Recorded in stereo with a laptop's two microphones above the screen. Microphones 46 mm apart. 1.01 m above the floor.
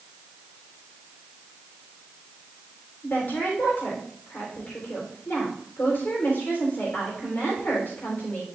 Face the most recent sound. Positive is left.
turn(degrees=50)  # may be behind; listen again after turning